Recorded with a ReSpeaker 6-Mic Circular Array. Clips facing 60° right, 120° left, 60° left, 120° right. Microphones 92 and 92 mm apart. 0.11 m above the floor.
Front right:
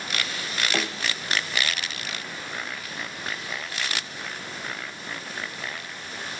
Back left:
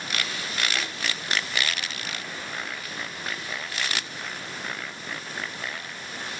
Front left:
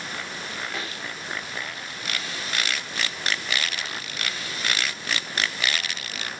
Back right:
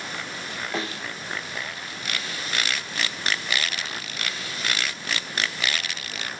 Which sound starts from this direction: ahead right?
A snare drum, at 0.7 s.